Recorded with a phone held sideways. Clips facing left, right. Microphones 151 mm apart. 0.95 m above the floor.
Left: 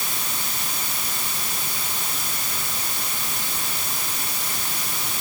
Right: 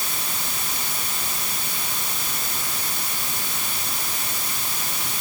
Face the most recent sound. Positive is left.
No sound to turn to.